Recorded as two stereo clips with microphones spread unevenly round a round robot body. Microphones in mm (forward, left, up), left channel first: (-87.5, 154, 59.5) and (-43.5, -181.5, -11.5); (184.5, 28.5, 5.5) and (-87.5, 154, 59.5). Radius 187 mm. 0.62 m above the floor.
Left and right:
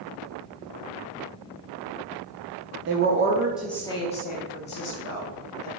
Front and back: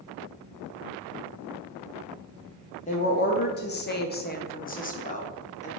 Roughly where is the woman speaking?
Right.